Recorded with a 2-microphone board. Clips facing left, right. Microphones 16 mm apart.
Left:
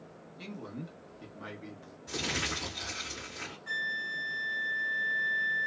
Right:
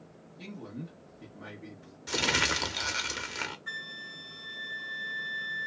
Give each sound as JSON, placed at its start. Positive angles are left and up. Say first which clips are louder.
{"t": 0.4, "sound": "a man speaking", "louder": "even", "side_deg": 20, "distance_m": 1.2}
{"t": 2.1, "sound": "crumpling", "louder": "right 6 dB", "side_deg": -60, "distance_m": 0.7}
{"t": 3.7, "sound": "a flute", "louder": "left 6 dB", "side_deg": 0, "distance_m": 0.9}